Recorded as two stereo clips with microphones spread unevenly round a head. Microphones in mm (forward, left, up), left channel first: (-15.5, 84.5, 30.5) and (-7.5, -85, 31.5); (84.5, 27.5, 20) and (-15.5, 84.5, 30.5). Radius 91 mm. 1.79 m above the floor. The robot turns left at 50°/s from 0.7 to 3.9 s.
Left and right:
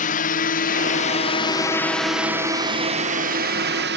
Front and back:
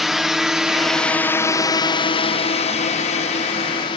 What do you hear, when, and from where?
0.0 s a drone: 60° left; by 4.0 s 80° right